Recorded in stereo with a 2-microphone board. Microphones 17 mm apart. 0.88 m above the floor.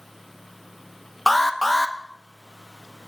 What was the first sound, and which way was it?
An alarm, 5° left (ahead or behind).